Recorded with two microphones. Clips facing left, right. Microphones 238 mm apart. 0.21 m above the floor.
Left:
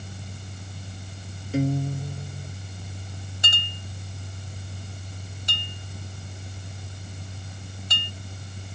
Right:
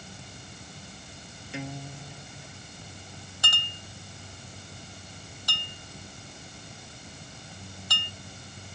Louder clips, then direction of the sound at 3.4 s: Left 3 dB; 20° left (ahead or behind).